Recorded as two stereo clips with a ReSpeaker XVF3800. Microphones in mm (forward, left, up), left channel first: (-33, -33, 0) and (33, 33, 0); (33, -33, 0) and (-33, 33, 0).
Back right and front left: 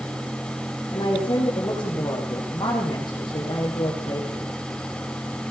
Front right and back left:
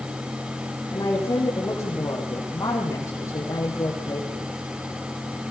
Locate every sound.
0.9 s a woman speaking: 95° right, 8 m